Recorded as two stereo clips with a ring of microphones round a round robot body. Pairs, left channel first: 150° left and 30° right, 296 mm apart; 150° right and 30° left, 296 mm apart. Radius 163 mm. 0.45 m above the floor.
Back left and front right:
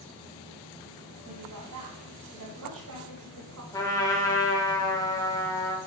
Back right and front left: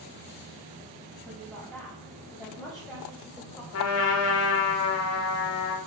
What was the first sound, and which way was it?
A woman speaking, 60° right.